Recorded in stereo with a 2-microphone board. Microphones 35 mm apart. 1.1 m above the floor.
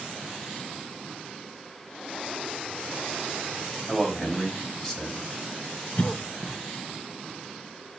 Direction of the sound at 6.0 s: 40° left (ahead or behind).